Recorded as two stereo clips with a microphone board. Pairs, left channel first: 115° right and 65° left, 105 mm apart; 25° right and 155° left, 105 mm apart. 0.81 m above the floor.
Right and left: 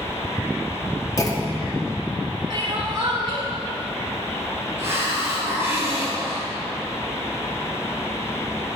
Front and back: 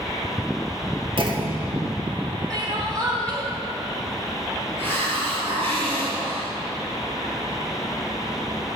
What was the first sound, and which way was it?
A clunk, 170° right.